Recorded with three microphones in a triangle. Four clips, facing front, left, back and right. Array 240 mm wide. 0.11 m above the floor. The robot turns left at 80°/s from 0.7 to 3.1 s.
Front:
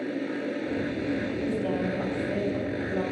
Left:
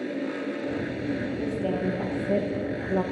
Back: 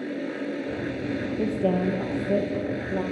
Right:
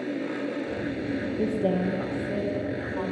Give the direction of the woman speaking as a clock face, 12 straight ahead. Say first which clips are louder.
Right 5 dB, back 4 dB; 5 o'clock.